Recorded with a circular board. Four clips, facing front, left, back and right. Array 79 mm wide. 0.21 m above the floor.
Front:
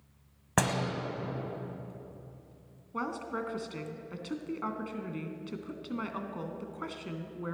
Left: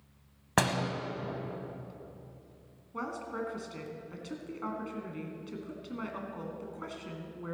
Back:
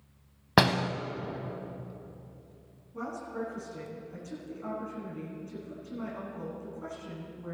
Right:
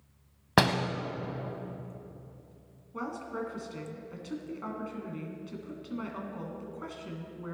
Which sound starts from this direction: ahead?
A woman speaking, at 2.9 s.